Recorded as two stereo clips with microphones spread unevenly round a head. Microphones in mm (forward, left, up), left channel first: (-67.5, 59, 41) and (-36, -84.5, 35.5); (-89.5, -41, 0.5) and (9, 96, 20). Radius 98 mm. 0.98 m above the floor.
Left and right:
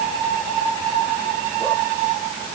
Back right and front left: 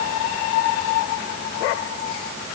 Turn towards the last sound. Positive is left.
No sound to turn to.